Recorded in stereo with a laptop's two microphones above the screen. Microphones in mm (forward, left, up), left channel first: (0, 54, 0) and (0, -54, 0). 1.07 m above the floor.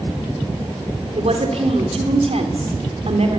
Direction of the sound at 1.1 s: 70° right (ahead or behind).